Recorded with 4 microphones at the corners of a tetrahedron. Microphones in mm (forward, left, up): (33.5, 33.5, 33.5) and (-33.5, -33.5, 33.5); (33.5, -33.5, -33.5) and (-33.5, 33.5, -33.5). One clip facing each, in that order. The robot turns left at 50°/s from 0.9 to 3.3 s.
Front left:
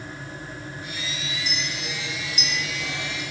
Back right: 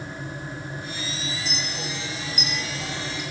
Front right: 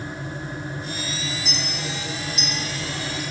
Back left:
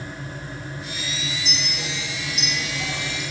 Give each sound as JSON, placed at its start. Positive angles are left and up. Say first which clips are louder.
{"t": 1.4, "sound": "a clink", "louder": "even, front right 1 dB", "azimuth_deg": -130, "distance_m": 5.5}